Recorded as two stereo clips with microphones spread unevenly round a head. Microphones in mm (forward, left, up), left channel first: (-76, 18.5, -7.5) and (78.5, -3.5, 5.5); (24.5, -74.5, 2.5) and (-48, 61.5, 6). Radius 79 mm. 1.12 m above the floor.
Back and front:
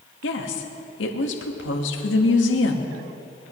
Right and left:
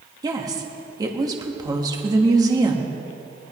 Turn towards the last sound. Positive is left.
turn(degrees=-175)